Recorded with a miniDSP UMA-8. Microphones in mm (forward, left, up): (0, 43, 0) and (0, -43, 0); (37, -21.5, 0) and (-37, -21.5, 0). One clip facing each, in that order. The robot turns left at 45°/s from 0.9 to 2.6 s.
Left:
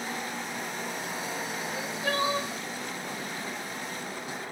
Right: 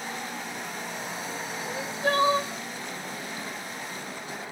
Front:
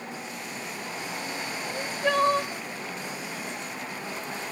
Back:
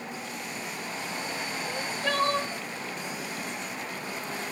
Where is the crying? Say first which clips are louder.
Right 6 dB, front 4 dB; 45° right, 0.5 m; by 2.5 s 85° right, 0.5 m.